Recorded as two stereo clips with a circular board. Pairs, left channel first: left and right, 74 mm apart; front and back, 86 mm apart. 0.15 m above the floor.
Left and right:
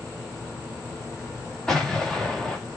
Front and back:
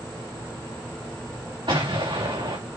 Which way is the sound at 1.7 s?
170° left.